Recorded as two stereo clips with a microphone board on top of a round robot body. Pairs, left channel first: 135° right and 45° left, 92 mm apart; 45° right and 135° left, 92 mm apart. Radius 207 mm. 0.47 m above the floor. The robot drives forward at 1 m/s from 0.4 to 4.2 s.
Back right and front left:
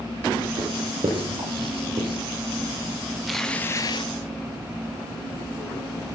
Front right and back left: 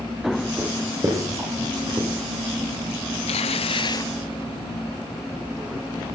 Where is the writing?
70° left, 7.5 m; by 2.2 s 85° left, 7.5 m.